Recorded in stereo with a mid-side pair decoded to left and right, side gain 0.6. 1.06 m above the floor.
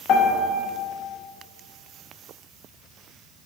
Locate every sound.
0.1 s a piano: 65° left, 0.7 m